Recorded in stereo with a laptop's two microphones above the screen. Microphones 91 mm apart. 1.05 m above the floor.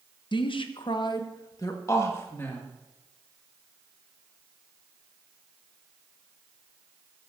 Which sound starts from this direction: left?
A woman speaking, at 0.3 s.